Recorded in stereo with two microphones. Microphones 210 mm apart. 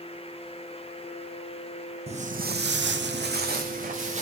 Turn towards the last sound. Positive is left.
turn(degrees=-35)  # may be behind; listen again after turning